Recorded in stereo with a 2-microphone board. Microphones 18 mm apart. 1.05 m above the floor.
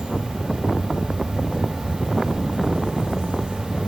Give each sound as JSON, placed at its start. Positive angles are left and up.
{"t": 0.0, "sound": "an insect", "side_deg": -75, "distance_m": 1.8}